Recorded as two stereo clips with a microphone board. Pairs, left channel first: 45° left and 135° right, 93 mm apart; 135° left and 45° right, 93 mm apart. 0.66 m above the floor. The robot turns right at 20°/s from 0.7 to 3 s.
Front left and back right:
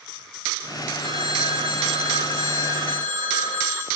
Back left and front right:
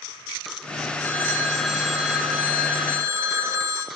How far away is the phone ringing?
About 7.5 m.